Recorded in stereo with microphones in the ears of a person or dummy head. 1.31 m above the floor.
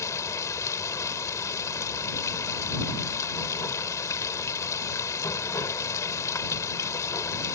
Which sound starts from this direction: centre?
Running water, at 0.0 s.